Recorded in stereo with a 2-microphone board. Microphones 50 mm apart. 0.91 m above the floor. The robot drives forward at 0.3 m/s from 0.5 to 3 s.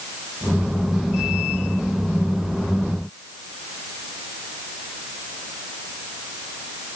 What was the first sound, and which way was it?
Only background noise.